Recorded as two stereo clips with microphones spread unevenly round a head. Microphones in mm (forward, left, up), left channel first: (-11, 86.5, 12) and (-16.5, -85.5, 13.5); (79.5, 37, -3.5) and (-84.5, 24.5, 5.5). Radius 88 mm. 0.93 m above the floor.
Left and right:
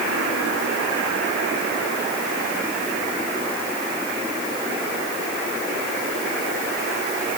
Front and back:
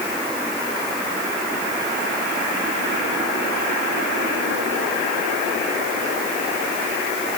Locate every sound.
Only background noise.